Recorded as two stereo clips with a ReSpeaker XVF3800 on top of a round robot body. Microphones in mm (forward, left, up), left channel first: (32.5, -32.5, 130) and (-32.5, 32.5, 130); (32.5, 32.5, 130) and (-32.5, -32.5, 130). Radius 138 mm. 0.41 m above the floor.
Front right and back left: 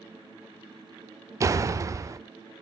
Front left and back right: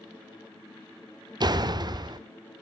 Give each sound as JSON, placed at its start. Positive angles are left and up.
{"t": 1.4, "sound": "a door slam", "azimuth_deg": -170, "distance_m": 1.0}